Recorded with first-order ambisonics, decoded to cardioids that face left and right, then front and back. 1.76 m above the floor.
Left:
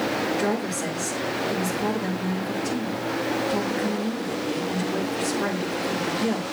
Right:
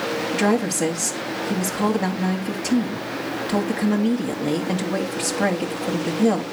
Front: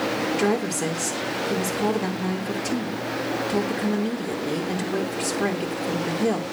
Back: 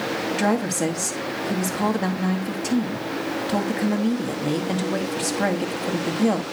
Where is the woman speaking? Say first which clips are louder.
Right 4 dB, back 3 dB; 130° right, 1.8 m.